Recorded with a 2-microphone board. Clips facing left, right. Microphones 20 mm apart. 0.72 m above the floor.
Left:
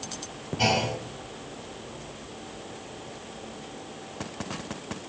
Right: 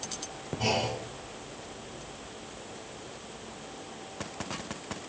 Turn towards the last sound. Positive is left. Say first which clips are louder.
# left 4 dB
turn(degrees=60)  # may be behind; listen again after turning